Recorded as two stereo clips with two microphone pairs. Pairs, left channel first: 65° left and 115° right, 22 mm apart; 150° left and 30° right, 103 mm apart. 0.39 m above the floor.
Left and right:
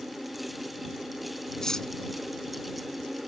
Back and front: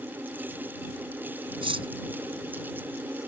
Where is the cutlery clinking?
Straight ahead.